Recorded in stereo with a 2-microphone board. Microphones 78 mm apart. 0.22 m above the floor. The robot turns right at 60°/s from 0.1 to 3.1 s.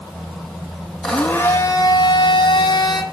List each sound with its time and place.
1.0 s a blender: straight ahead, 1.9 m; by 3.0 s 120° left, 1.9 m